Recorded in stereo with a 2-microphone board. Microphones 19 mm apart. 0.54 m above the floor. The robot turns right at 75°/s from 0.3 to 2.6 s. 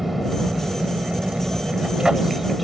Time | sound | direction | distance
0.0 | an aircraft | 175° right | ?